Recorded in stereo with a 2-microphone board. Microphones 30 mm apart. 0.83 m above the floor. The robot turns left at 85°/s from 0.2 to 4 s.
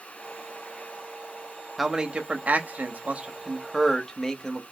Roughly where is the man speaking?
Ahead.